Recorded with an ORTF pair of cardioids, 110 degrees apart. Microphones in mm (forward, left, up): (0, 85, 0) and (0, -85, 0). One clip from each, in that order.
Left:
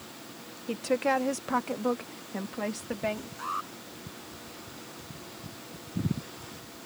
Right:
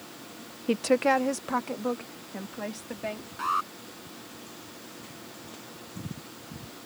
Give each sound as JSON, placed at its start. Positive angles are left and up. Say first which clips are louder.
{"t": 0.7, "sound": "a woman speaking", "louder": "right 4 dB", "azimuth_deg": -40}
{"t": 3.4, "sound": "an alarm", "louder": "right 8 dB", "azimuth_deg": -35}